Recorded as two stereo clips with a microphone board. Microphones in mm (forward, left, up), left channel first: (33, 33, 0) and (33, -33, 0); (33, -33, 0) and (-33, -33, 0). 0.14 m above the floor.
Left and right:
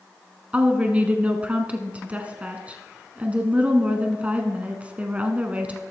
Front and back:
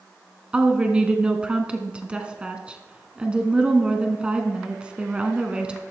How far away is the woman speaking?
About 1.2 m.